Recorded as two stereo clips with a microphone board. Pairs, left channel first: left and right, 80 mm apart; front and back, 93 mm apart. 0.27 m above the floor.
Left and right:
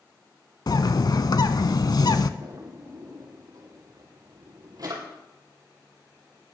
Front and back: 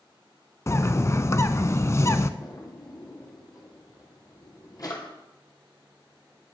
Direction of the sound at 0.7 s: 55° left.